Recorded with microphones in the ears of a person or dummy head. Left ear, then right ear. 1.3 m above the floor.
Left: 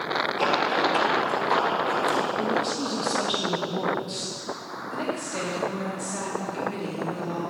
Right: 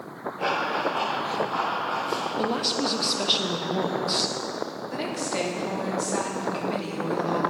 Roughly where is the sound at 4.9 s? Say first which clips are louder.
Even; centre.